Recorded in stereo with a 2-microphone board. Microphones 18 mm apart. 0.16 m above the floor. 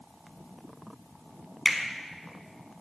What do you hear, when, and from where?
1.6 s a finger snap: 10° right (ahead or behind), 0.8 m